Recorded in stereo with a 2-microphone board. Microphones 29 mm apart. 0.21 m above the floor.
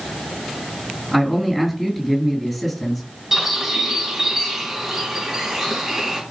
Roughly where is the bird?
Centre.